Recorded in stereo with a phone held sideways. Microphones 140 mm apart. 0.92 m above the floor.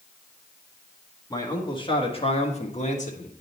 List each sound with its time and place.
1.3 s a man speaking: 25° left (ahead or behind), 1.7 m; by 3.3 s 60° left (ahead or behind), 1.3 m